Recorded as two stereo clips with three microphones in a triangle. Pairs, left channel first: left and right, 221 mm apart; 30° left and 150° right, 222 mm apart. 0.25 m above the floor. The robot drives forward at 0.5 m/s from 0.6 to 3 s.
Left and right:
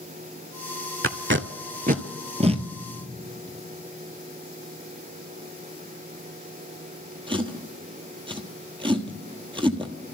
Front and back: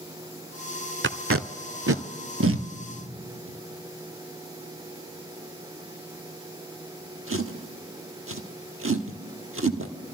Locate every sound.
1.0 s tape being pulled: 110° right, 0.5 m; by 9.9 s 160° right, 1.3 m